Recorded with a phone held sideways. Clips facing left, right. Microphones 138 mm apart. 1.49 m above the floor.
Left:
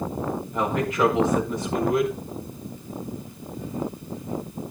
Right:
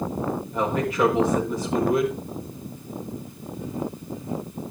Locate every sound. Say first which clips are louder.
0.5 s a man speaking: even; 5° right (ahead or behind), 5.5 m